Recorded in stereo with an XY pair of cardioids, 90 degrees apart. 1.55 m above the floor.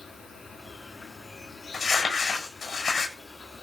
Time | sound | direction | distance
0.0 | an insect | 50° left | 5 m
1.7 | crumpling | 60° left | 7.5 m